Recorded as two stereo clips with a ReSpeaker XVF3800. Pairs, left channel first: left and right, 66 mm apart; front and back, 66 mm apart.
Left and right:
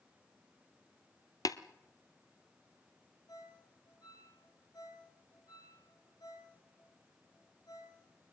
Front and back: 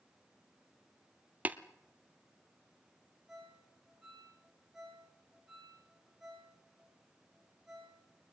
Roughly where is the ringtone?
Left.